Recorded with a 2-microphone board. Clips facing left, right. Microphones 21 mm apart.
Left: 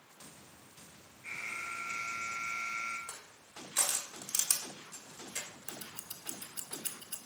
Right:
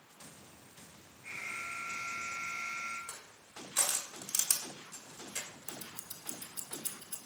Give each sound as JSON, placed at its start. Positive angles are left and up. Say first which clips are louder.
{"t": 1.2, "sound": "an alarm", "louder": "left 1 dB", "side_deg": 20, "distance_m": 5.0}
{"t": 3.1, "sound": "crushing", "louder": "even", "side_deg": 15, "distance_m": 1.6}
{"t": 5.7, "sound": "scissors", "louder": "even", "side_deg": 55, "distance_m": 0.6}